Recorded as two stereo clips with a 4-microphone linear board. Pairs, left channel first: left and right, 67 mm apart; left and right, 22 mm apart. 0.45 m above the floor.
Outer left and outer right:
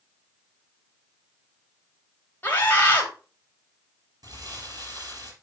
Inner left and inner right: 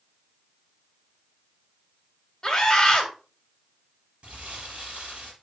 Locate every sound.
2.4 s a scream: 25° left (ahead or behind), 2 m
4.2 s crumpling: 65° right (ahead or behind), 4 m